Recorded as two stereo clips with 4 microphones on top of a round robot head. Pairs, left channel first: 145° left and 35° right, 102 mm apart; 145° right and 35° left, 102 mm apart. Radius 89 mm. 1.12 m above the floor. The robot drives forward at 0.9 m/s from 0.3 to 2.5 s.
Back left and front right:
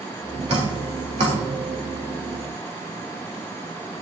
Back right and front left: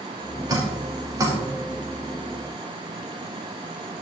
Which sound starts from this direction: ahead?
Dripping, at 0.5 s.